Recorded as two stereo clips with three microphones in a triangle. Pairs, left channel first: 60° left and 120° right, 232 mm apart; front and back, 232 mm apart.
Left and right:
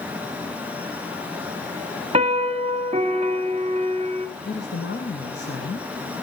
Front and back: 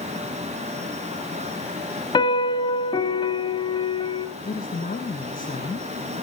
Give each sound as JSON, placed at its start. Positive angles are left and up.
{"t": 2.1, "sound": "a piano", "azimuth_deg": -65, "distance_m": 1.1}
{"t": 4.5, "sound": "a woman speaking", "azimuth_deg": 45, "distance_m": 2.0}